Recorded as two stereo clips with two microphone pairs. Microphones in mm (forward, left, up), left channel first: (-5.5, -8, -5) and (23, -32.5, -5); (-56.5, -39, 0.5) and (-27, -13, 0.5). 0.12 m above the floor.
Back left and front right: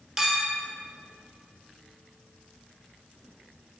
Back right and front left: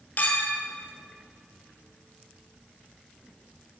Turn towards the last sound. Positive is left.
turn(degrees=-110)